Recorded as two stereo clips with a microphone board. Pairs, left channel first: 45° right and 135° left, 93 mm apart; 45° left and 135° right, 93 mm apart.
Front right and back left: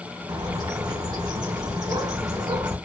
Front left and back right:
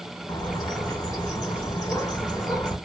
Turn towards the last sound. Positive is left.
turn(degrees=95)